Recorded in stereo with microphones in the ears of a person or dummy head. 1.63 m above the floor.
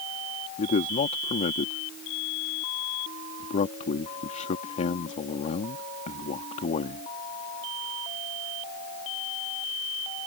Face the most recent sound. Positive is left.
turn(degrees=40)  # may be behind; listen again after turning